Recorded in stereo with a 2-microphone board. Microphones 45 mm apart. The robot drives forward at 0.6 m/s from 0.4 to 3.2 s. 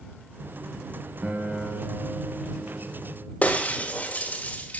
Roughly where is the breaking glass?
Left.